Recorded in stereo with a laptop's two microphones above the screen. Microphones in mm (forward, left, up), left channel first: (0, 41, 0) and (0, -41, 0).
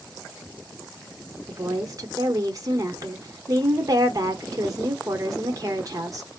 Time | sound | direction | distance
1.5 | a woman speaking | 45° right (ahead or behind) | 0.8 m